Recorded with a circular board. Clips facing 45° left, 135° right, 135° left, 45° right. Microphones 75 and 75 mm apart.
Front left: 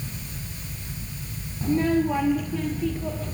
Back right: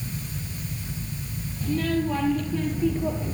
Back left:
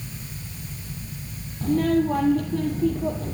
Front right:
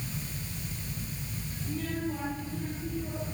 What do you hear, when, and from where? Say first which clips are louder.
1.6 s a child speaking: front left 3 dB, back left 14 dB; 105° left, 3 m; by 3.4 s 155° left, 3 m